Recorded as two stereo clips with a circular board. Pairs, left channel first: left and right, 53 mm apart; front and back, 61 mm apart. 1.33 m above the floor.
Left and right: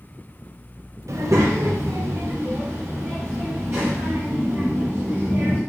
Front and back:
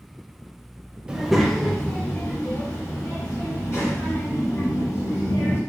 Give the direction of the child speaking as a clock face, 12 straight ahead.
3 o'clock.